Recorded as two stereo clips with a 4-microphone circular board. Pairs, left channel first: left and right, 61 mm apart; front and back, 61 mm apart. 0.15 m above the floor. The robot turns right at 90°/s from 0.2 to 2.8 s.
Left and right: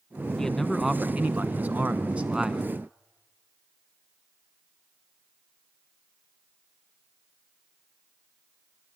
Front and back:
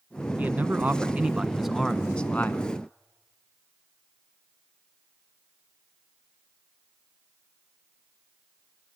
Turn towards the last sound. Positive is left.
turn(degrees=10)